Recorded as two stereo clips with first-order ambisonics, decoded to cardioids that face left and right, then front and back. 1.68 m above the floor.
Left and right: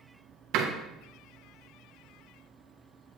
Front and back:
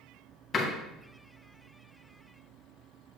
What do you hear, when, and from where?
0.5 s a door slam: 65° right, 1.5 m